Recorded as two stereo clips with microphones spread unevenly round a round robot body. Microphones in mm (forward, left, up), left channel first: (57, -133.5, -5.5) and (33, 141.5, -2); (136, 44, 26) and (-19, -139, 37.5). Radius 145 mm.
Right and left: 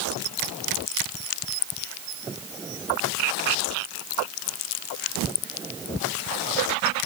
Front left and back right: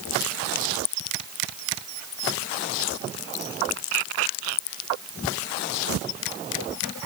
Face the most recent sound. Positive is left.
No sound to turn to.